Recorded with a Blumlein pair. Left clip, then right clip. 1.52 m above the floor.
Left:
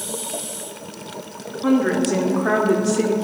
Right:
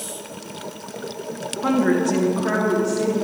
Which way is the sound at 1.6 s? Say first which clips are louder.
Left 1 dB; 15° right.